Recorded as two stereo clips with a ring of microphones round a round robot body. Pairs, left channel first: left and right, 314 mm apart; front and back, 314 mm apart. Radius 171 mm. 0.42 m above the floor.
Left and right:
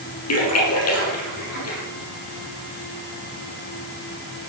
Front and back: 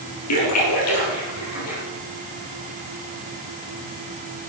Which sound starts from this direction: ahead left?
A splash, at 0.3 s.